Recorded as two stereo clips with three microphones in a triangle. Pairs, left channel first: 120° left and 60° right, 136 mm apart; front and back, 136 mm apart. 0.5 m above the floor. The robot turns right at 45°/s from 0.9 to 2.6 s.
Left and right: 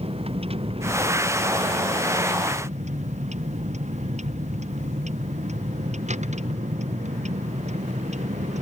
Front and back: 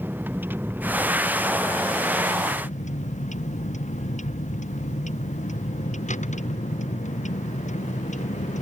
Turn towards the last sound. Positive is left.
turn(degrees=-30)